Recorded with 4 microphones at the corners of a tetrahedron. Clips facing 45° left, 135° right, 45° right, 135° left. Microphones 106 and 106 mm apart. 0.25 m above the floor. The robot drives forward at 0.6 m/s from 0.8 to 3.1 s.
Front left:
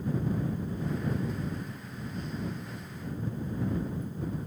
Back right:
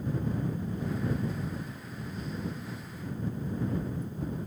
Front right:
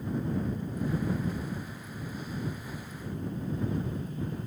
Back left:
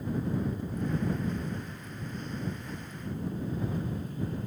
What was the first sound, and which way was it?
Only background noise.